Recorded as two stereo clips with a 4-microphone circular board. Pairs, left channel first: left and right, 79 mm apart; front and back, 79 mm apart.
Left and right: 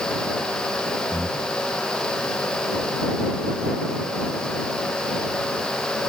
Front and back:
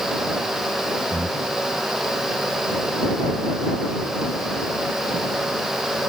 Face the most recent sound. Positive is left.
turn(degrees=-175)